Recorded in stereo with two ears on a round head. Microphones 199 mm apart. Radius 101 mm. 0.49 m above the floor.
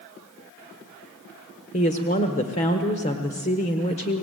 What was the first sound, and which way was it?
A woman speaking, 30° left (ahead or behind).